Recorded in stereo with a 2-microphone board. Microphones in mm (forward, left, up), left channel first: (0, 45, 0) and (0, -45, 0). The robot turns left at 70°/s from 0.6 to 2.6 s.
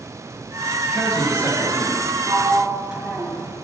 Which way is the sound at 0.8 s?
165° right.